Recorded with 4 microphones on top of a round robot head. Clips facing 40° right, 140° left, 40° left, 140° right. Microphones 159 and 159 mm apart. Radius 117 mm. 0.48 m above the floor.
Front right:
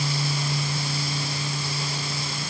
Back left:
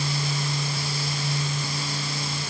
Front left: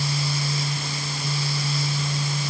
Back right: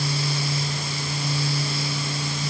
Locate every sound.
Only background noise.